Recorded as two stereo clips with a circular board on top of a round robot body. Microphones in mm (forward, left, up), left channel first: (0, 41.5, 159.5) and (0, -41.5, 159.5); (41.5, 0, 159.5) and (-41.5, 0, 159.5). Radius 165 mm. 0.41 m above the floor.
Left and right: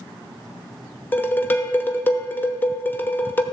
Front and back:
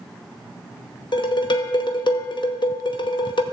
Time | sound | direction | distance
1.1 | dishes clattering | 25° left | 1.0 m